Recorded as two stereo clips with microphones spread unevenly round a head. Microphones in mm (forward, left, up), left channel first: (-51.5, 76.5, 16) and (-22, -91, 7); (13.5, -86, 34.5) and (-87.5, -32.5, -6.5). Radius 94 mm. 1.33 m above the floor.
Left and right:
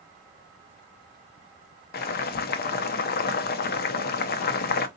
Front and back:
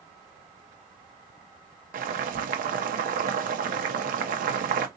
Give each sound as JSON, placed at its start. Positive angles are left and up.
{"t": 1.9, "sound": "boiling", "azimuth_deg": 135, "distance_m": 0.6}